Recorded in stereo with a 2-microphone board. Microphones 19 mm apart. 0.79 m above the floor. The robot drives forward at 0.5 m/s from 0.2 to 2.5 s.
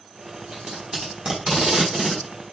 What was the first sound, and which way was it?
Tape being pulled, 60° right (ahead or behind).